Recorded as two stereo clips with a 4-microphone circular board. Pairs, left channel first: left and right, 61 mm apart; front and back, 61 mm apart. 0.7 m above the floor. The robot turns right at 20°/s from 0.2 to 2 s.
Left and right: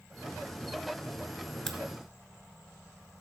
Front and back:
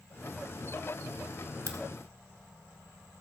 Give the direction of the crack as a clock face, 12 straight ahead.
6 o'clock.